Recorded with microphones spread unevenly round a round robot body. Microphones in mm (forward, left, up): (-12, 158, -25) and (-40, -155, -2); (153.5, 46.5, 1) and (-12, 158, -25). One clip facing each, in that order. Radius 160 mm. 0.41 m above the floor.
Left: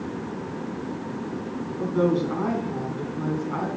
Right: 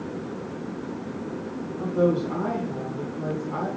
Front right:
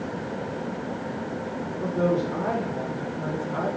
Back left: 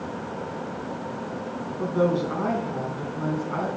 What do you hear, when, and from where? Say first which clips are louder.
1.8 s a woman speaking: even, back left 1 dB; 155° left, 3.5 m; by 3.7 s 130° left, 4 m